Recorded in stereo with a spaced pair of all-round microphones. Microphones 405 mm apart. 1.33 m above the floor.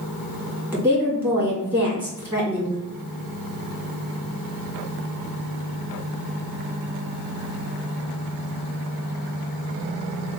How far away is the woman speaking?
About 2 m.